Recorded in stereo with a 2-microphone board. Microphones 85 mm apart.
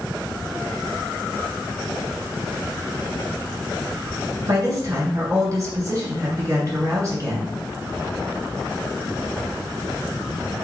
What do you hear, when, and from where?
4.5 s a woman speaking: 40° right (ahead or behind), 1.9 m